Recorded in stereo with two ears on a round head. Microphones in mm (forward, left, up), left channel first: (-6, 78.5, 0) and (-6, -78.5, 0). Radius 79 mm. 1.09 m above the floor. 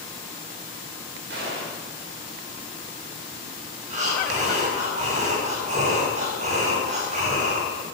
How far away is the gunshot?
About 5 m.